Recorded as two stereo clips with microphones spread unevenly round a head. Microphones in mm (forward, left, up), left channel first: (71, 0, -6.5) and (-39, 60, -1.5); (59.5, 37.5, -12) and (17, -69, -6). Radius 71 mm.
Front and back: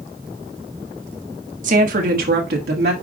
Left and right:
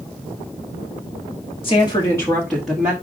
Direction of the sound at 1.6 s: 125° left.